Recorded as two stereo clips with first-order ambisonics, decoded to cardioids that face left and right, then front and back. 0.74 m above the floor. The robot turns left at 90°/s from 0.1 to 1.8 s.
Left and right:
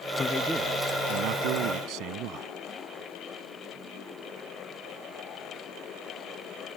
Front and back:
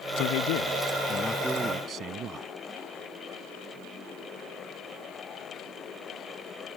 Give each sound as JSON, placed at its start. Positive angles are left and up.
{"t": 0.2, "sound": "a man speaking", "azimuth_deg": 25}